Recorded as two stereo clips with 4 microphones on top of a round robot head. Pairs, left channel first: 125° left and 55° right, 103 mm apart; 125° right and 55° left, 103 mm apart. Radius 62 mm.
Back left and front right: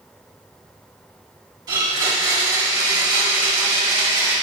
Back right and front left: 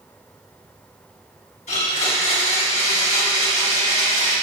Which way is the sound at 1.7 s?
105° right.